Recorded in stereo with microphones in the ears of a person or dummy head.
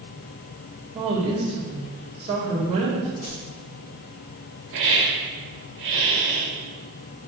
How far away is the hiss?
About 1.7 m.